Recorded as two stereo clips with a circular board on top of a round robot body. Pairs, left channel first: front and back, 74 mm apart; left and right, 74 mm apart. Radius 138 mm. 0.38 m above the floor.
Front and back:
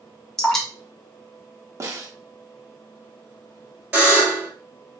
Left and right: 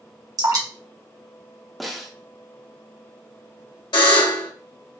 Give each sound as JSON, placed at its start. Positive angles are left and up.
{"t": 0.4, "sound": "dripping", "azimuth_deg": -80, "distance_m": 1.5}
{"t": 1.8, "sound": "a snare drum", "azimuth_deg": 180, "distance_m": 1.2}
{"t": 3.9, "sound": "a buzzer", "azimuth_deg": 110, "distance_m": 1.9}